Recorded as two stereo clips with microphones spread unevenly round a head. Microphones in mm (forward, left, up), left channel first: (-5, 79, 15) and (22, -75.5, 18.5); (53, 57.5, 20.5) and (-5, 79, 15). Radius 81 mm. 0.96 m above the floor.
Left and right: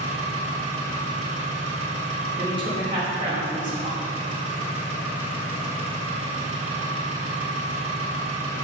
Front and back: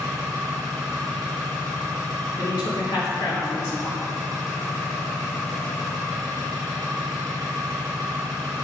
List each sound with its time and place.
0.0 s an engine running: 135° right, 2 m
2.4 s a woman speaking: 20° right, 3 m